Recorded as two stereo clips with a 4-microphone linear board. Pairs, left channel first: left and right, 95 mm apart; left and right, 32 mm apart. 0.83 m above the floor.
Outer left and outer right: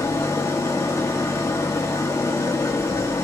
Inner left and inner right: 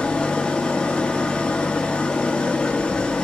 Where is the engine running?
30° left (ahead or behind), 1.1 m.